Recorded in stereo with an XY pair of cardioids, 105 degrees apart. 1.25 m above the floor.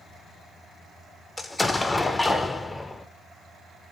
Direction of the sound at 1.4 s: 20° left.